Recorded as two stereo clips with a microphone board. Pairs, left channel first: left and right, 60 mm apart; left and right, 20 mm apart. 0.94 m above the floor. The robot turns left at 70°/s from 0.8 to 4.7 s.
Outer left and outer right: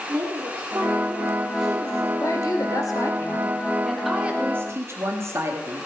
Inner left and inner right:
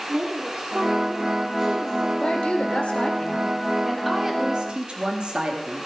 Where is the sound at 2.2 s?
125° left, 1.9 m; by 5.9 s 50° right, 1.9 m.